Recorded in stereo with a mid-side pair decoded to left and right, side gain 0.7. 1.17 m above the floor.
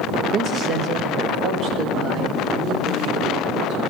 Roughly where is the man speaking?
Ahead right.